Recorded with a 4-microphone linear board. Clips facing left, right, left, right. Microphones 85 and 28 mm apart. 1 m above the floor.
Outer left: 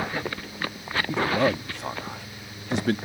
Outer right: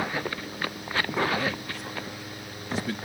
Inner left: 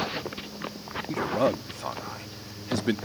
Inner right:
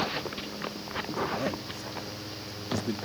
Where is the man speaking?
70° left (ahead or behind).